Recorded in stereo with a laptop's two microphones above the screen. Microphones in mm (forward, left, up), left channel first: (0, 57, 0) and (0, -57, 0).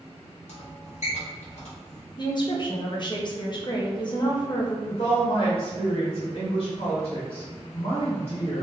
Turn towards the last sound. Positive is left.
turn(degrees=55)  # may be behind; listen again after turning